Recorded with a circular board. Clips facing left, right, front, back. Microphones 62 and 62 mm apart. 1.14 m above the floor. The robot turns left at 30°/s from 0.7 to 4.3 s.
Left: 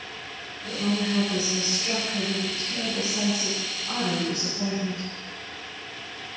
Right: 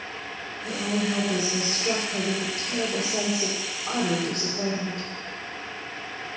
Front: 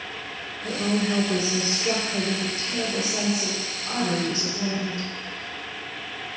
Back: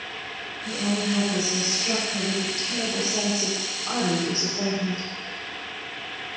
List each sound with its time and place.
0.6 s a woman speaking: 20° right, 3 m; by 5.1 s 125° right, 3 m